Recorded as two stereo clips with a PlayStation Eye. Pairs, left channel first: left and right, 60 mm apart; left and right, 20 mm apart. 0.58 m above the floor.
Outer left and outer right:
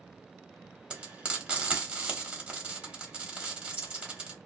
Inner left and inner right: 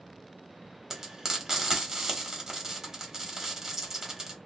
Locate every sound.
0.9 s frying: 20° right (ahead or behind), 1.2 m